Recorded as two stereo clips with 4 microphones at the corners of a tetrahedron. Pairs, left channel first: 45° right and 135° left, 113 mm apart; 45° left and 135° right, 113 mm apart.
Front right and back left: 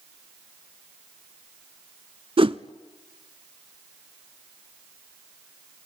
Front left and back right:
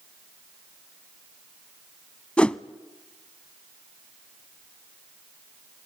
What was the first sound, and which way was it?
A whoosh, 125° left.